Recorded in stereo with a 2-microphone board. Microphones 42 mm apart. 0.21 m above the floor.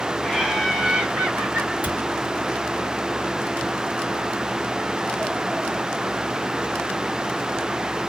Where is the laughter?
5° left (ahead or behind), 1.3 m; by 1.7 s 30° right (ahead or behind), 1.9 m.